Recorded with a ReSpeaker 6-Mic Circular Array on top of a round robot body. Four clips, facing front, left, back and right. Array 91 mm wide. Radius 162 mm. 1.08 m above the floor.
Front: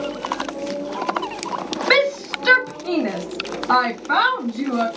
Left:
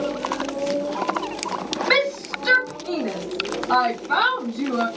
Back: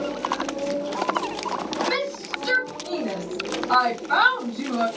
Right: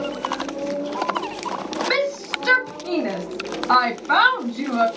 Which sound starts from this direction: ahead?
A shout, at 1.9 s.